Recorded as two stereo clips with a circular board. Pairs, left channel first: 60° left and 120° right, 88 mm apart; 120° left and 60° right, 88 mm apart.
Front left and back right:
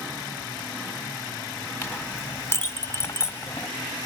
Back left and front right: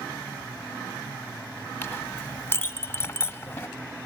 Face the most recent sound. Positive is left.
turn(degrees=90)